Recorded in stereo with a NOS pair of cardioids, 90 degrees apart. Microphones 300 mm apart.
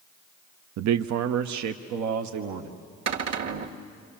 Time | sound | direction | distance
0.8 | a man speaking | 60° right | 0.5 m
3.1 | a cupboard door | 55° right | 1.8 m